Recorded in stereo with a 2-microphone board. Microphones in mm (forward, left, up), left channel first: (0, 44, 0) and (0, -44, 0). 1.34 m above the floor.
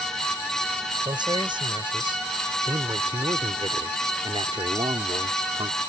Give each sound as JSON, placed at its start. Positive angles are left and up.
{"t": 1.1, "sound": "a man speaking", "side_deg": -60}